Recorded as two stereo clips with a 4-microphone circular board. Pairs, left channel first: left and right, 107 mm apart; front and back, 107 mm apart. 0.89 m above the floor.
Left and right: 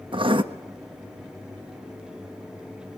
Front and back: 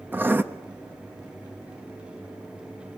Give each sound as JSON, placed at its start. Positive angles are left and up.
{"t": 0.1, "sound": "writing", "azimuth_deg": -110, "distance_m": 1.1}